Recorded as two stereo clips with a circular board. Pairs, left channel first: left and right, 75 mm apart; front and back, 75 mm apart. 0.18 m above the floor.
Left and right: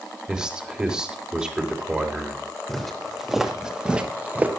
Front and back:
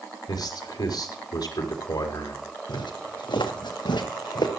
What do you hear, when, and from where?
0.3 s a man speaking: 10° right, 3.5 m
2.7 s footsteps: 5° left, 3.5 m; by 4.5 s 20° right, 2.5 m